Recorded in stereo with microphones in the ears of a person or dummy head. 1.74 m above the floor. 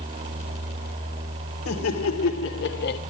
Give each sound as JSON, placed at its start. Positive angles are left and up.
{"t": 1.6, "sound": "laughter", "side_deg": 85, "distance_m": 2.0}